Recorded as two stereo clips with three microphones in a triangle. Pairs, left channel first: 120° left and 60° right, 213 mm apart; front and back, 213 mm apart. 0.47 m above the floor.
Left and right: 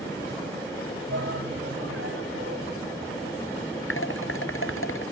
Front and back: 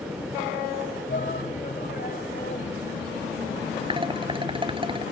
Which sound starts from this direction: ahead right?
A shout, at 1.1 s.